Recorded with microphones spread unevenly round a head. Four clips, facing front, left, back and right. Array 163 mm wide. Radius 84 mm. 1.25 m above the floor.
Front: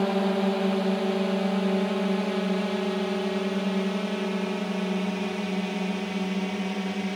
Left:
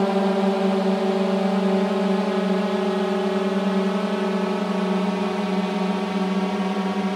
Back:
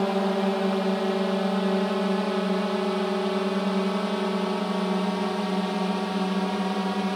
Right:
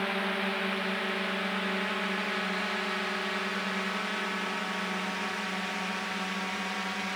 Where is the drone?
90° left; by 7.2 s 105° left.